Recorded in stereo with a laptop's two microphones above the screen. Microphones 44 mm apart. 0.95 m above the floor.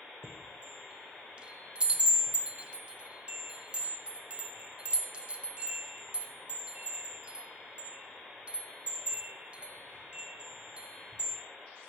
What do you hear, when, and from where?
0.2 s a chime: 25° right (ahead or behind), 0.7 m